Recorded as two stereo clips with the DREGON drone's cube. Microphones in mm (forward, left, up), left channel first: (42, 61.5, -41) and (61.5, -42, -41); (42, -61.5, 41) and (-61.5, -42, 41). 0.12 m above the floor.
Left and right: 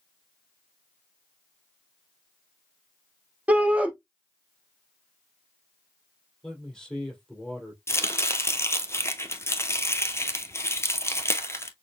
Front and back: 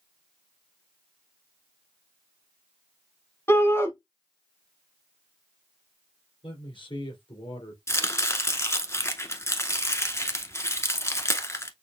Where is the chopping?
45° left, 0.7 m.